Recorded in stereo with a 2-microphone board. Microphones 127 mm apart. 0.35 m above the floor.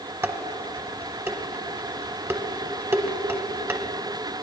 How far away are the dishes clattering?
About 0.8 m.